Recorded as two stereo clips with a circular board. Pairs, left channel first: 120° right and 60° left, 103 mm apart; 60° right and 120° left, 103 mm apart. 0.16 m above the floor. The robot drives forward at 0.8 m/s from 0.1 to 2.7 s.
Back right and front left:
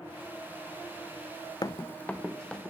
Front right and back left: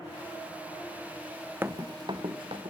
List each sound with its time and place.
1.6 s running footsteps: 170° right, 0.5 m; by 2.7 s 155° left, 2.5 m